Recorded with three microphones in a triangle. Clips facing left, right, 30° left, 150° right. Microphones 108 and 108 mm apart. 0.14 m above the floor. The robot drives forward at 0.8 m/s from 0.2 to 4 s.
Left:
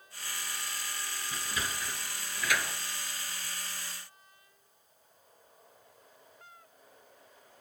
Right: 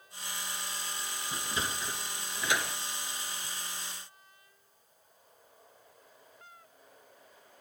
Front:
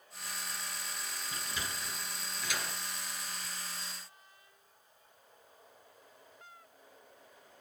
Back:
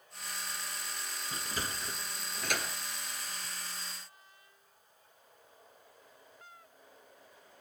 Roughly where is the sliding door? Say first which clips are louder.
Right 2 dB, back 3 dB; behind right.